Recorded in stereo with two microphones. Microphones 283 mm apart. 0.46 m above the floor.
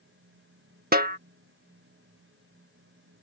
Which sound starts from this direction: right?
A snare drum, at 0.9 s.